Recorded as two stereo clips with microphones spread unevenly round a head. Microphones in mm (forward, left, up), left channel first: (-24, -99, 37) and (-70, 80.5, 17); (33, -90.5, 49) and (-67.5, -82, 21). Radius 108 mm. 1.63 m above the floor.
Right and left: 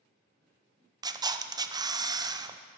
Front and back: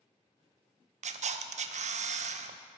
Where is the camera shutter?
175° left, 0.7 m.